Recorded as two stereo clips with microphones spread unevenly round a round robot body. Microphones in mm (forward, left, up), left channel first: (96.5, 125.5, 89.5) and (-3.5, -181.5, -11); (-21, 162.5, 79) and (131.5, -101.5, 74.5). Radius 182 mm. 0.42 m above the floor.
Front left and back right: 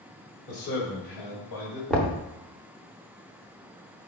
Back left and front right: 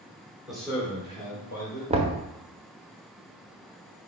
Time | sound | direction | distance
0.5 | a man speaking | 25° left | 1.4 m
1.9 | knocking | 70° right | 0.7 m